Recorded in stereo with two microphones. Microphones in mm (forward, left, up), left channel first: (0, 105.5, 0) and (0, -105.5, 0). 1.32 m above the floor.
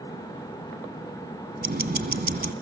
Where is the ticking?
45° right (ahead or behind), 1.6 m.